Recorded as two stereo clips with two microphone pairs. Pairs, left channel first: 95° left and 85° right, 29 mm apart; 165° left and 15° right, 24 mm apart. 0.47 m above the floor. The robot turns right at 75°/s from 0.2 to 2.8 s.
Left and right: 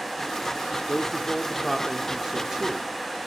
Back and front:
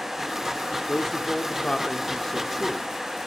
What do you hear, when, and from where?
0.9 s a man speaking: 120° left, 0.9 m; by 2.9 s 100° right, 0.9 m